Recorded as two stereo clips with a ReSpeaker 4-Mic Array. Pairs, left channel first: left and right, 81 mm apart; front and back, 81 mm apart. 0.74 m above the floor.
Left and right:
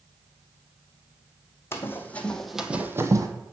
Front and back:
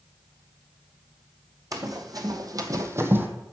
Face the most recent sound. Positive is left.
turn(degrees=-120)